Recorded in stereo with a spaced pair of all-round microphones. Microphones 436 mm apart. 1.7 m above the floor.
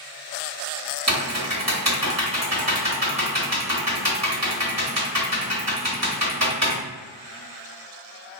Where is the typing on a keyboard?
35° right (ahead or behind), 1.4 m.